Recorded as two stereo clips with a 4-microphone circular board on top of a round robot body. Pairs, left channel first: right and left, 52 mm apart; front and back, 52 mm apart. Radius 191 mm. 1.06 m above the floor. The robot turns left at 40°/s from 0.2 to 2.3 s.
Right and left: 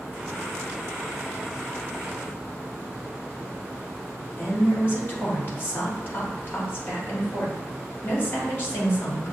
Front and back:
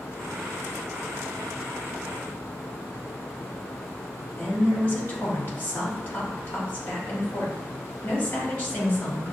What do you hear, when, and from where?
4.4 s a woman speaking: 45° right, 1.8 m